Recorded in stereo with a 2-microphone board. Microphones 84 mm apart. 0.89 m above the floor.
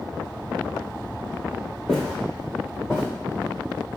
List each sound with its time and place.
1.9 s footsteps: centre (ahead or behind), 1.1 m; by 3.0 s 10° right (ahead or behind), 1.5 m